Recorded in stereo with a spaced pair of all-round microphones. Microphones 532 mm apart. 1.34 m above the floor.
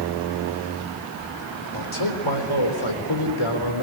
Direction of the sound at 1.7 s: 65° left (ahead or behind).